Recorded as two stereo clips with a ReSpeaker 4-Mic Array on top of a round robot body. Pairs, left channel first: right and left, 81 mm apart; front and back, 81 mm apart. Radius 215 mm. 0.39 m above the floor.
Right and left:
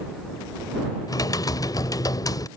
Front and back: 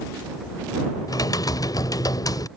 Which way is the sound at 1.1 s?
45° right.